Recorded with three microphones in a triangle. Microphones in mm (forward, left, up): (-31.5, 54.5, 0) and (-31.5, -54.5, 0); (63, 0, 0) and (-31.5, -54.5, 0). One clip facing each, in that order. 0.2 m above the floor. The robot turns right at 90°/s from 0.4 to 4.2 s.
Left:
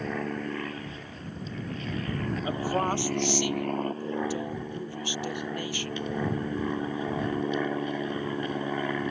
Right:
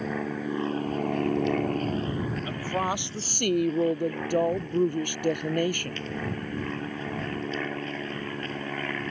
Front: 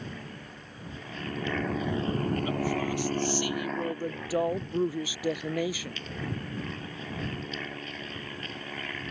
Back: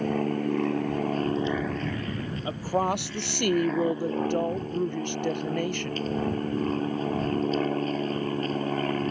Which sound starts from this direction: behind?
An aircraft, at 0.0 s.